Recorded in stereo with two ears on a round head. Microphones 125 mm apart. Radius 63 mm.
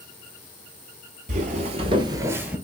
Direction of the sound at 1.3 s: 55° right (ahead or behind).